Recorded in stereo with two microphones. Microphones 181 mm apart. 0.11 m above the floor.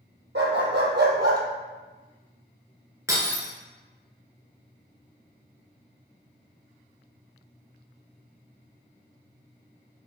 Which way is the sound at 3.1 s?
20° right (ahead or behind).